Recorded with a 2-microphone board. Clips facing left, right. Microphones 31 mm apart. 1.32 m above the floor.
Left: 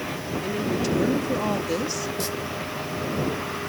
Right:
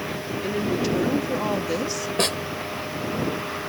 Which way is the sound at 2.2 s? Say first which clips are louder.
Right 6 dB; 65° right (ahead or behind).